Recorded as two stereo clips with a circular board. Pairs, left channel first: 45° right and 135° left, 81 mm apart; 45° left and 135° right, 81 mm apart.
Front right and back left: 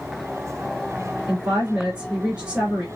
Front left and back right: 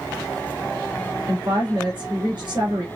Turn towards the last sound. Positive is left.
turn(degrees=-150)